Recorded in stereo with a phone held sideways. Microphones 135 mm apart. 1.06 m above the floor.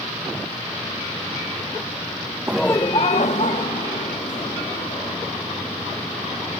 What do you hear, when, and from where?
2.5 s laughter: 20° right (ahead or behind), 0.5 m; by 5.1 s 80° left, 3.5 m